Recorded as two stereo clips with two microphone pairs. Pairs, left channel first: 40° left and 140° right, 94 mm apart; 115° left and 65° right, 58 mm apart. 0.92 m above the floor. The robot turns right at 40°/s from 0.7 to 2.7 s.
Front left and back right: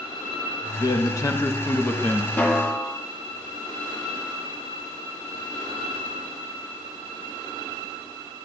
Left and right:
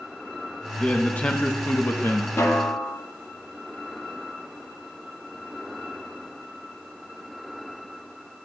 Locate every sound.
0.8 s a man speaking: 50° left, 0.7 m; by 2.3 s 110° left, 0.7 m
2.4 s a snare drum: 105° left, 0.9 m; by 3.0 s 120° left, 0.9 m